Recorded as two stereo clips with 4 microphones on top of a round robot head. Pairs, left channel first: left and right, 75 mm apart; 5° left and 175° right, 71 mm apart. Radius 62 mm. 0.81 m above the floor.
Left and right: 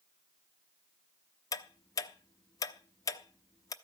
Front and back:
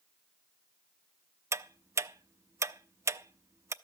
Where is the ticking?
135° left, 0.7 m.